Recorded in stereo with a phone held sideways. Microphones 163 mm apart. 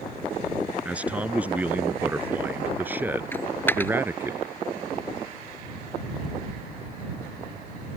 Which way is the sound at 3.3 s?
15° left (ahead or behind).